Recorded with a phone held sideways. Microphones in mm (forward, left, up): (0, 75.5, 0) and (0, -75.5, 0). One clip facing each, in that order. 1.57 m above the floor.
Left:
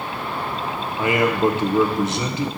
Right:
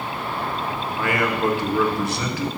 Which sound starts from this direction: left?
A man speaking, at 1.0 s.